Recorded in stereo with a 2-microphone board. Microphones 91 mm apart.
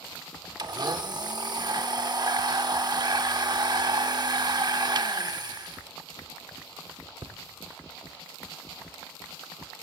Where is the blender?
50° right (ahead or behind), 0.7 m.